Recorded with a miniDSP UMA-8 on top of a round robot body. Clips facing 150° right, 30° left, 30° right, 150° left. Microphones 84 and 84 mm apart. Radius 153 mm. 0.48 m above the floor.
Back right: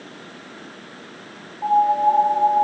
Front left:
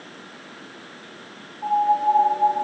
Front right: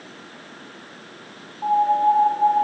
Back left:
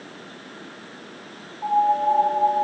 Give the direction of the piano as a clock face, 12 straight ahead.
3 o'clock.